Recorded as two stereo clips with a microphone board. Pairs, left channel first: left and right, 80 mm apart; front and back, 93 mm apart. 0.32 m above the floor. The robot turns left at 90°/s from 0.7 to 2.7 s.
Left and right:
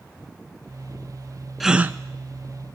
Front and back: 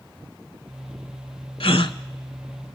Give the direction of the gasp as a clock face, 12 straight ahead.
12 o'clock.